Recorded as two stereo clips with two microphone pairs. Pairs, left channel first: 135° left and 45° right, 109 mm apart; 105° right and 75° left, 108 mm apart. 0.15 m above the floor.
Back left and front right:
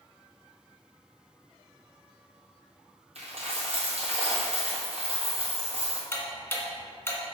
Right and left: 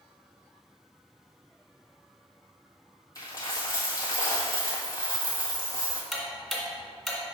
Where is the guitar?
I don't hear a guitar.